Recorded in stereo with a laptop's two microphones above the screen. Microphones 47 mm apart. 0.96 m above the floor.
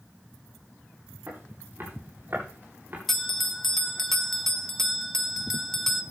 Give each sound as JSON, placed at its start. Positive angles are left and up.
{"t": 1.3, "sound": "footsteps", "side_deg": -50, "distance_m": 8.0}
{"t": 3.1, "sound": "a bell", "side_deg": 10, "distance_m": 0.7}